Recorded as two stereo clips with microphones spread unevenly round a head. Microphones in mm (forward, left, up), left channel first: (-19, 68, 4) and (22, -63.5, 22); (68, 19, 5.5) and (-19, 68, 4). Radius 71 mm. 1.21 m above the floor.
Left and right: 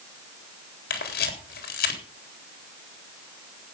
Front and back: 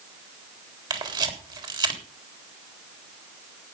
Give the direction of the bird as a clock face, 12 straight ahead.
No bird in this recording.